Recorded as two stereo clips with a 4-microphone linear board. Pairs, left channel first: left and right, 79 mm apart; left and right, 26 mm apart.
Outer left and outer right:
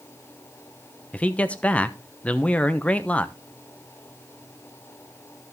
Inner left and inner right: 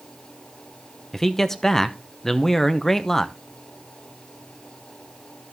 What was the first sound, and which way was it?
A man speaking, 15° left (ahead or behind).